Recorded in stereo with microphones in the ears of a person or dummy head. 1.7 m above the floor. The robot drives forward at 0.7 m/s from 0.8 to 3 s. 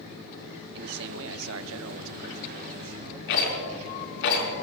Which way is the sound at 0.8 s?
55° right (ahead or behind).